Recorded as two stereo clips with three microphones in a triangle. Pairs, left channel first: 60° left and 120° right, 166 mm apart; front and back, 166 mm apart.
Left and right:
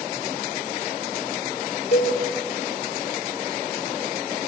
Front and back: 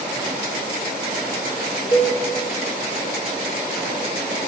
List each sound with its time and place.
1.9 s a cowbell: 60° left, 2 m